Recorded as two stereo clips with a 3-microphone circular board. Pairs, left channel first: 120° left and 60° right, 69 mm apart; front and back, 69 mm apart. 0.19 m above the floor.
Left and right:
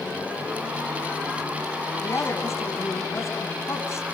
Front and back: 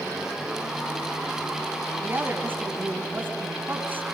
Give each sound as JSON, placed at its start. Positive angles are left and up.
{"t": 2.0, "sound": "a woman speaking", "azimuth_deg": 135, "distance_m": 1.9}